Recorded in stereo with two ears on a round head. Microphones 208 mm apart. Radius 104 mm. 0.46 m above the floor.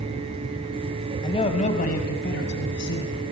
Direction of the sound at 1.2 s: 20° left (ahead or behind).